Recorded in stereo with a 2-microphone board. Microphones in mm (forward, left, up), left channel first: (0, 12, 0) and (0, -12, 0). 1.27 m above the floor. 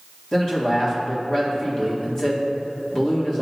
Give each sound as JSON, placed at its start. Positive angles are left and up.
{"t": 0.3, "sound": "a man speaking", "side_deg": 25, "distance_m": 1.7}